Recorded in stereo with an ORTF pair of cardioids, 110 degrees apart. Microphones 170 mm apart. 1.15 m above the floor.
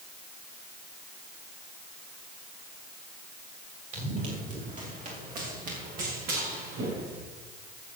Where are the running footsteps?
50° right, 6 m; by 7.2 s 75° right, 4.5 m.